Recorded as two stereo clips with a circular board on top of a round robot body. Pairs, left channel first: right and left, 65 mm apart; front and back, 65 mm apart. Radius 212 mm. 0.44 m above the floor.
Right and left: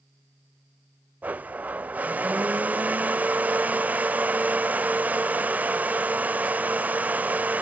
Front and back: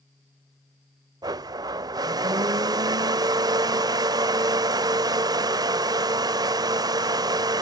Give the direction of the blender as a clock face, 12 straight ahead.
7 o'clock.